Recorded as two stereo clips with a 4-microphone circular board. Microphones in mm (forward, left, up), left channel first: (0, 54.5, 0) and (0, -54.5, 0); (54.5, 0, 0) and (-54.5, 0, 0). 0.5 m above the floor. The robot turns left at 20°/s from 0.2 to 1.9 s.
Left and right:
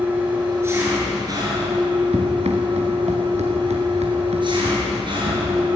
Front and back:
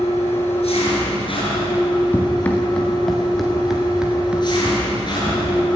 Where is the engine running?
15° right, 8.5 m; by 5.8 s 50° right, 8.5 m.